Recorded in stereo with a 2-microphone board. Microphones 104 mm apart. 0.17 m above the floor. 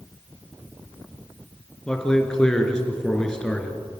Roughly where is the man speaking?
Centre.